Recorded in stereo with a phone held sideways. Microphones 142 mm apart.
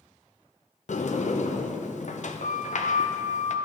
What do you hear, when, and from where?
0.9 s a sliding door: 60° left (ahead or behind), 0.6 m